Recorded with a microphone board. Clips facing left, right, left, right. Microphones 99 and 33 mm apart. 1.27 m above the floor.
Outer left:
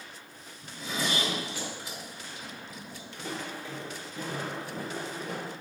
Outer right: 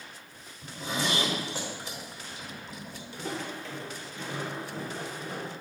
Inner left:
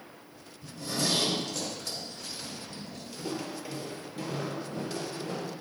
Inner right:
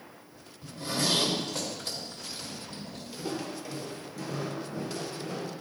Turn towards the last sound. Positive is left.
turn(degrees=65)  # may be behind; listen again after turning